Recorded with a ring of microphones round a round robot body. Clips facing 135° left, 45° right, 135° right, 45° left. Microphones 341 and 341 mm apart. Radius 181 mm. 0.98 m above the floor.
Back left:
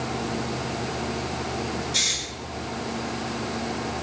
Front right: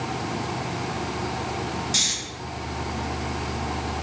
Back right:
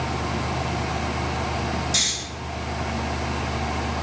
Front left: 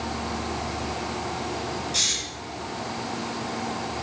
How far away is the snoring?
About 9 m.